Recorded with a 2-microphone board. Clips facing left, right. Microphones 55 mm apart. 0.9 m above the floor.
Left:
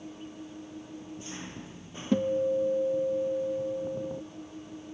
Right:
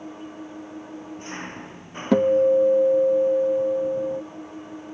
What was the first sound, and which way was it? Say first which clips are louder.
An engine running: right 6 dB; 40° right (ahead or behind).